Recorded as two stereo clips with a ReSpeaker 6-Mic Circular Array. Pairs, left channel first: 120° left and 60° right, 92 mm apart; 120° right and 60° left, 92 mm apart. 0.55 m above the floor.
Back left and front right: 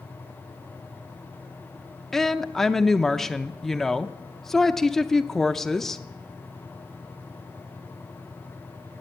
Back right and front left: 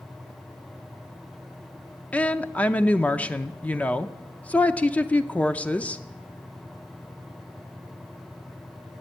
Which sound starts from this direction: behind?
A woman speaking, at 2.1 s.